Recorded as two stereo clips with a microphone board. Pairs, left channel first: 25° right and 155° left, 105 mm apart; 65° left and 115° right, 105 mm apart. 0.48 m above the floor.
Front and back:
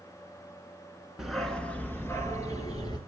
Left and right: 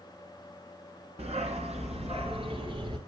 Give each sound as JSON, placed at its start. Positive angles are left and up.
{"t": 1.2, "sound": "a dog barking", "azimuth_deg": -115, "distance_m": 1.8}